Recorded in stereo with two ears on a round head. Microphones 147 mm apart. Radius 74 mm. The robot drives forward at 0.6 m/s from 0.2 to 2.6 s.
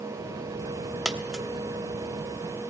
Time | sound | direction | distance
1.1 | a dropped coin | 5° right (ahead or behind) | 1.1 m